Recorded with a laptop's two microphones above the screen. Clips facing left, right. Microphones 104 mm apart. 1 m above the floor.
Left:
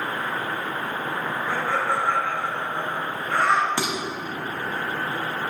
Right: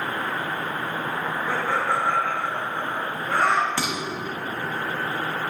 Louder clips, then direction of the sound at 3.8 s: Left 1 dB; 20° left (ahead or behind).